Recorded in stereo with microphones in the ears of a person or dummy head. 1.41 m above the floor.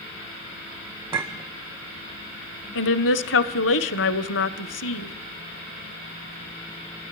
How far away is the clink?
About 0.8 m.